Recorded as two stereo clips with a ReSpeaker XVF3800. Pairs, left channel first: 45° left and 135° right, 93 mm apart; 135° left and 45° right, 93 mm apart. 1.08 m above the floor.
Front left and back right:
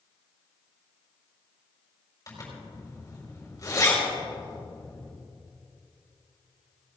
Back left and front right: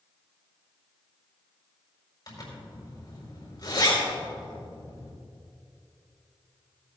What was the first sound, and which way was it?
A zipper, 95° left.